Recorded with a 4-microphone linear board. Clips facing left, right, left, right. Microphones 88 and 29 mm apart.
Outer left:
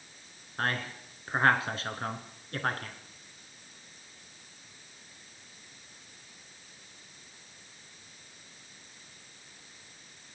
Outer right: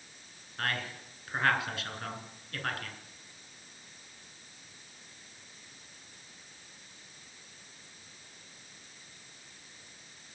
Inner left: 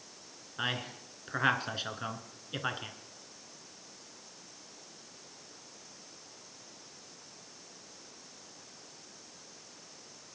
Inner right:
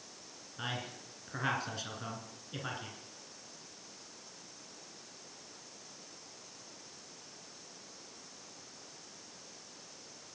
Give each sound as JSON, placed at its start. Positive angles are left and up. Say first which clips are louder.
{"t": 0.6, "sound": "a man speaking", "louder": "outer left 3 dB, inner left 5 dB", "side_deg": 35, "distance_m": 1.7}